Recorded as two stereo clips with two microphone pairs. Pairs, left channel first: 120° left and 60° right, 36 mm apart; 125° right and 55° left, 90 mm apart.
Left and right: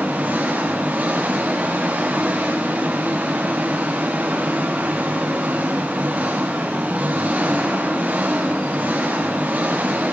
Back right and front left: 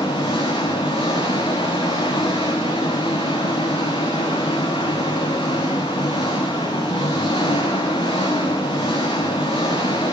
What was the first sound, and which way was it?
An engine running, 105° right.